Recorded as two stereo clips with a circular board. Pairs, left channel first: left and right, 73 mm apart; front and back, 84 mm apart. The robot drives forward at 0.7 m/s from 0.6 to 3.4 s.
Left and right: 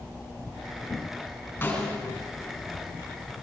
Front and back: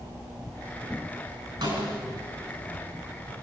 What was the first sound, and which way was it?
A snare drum, 150° left.